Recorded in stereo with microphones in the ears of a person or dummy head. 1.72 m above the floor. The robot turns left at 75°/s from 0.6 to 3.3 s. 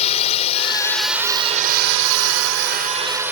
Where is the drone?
40° left (ahead or behind); by 3.3 s 5° right (ahead or behind).